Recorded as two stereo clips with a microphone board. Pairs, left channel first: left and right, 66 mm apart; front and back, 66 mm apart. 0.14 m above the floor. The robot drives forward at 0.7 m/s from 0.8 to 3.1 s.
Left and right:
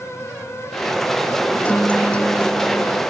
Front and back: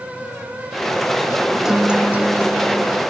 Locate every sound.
1.6 s a guitar: 110° left, 1.1 m; by 3.0 s 165° left, 1.5 m